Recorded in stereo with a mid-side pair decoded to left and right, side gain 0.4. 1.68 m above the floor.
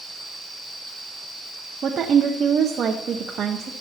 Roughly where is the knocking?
I don't hear knocking.